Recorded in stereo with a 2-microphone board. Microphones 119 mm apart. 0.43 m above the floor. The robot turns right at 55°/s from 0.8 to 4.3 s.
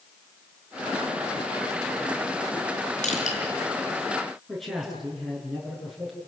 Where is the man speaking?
Centre (ahead or behind), 6.5 m.